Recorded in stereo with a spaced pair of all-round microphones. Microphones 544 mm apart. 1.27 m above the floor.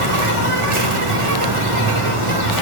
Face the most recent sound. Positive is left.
turn(degrees=-65)  # may be behind; listen again after turning